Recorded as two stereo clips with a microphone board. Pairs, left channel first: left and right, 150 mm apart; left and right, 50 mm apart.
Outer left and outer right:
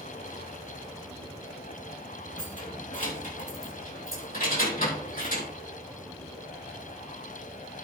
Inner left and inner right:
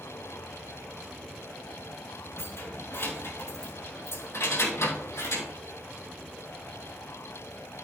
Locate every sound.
2.4 s keys jangling: 55° left (ahead or behind), 3 m; by 5.5 s 75° left (ahead or behind), 4.5 m